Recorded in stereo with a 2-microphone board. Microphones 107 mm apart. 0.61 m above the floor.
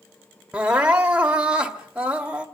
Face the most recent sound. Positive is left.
turn(degrees=-10)  # may be behind; listen again after turning